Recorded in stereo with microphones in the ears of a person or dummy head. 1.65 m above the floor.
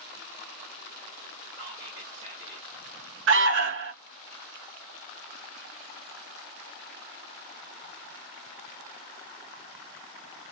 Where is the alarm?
55° right (ahead or behind), 0.6 m.